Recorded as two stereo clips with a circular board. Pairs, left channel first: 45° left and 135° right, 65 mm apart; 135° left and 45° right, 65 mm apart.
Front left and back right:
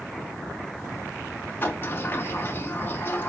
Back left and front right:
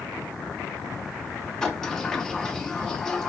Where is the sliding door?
60° left, 0.6 m.